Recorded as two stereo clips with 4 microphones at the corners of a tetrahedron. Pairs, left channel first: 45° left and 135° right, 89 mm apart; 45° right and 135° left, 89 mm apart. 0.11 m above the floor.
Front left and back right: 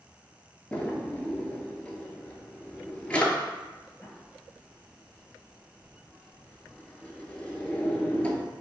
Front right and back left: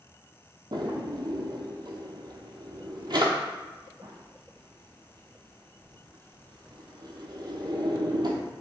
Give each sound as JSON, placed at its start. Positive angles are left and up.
{"t": 0.7, "sound": "a drawer", "azimuth_deg": 120, "distance_m": 0.8}